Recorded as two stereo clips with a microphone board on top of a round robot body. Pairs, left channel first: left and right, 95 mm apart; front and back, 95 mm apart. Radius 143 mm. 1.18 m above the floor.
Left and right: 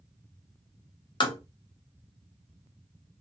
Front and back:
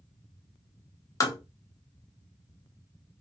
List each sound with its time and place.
1.2 s tapping: 55° left, 0.8 m